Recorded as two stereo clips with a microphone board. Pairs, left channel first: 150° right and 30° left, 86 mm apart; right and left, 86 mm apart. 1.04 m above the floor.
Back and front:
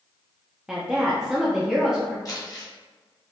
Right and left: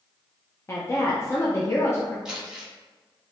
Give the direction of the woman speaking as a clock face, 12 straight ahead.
2 o'clock.